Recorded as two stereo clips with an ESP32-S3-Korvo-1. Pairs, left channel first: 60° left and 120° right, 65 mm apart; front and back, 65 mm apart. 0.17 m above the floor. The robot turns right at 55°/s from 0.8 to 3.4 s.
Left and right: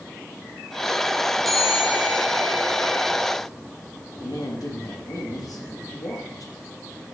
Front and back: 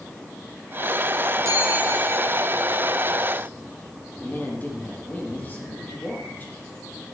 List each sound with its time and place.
1.4 s a bell: 145° left, 3 m; by 3.1 s 120° right, 3 m
4.2 s a woman speaking: 60° left, 4.5 m